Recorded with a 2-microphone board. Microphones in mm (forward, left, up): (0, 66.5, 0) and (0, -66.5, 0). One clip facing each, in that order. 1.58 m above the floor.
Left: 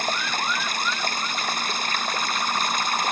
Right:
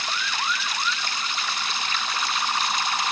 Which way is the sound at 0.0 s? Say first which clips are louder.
Left 3 dB; 45° left (ahead or behind).